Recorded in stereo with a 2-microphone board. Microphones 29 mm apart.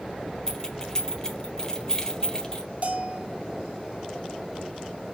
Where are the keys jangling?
20° left (ahead or behind), 1.4 m.